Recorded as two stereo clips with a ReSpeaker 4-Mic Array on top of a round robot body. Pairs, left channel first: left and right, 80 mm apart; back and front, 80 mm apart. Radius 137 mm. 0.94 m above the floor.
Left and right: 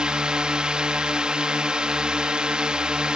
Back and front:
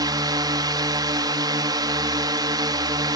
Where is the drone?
15° right.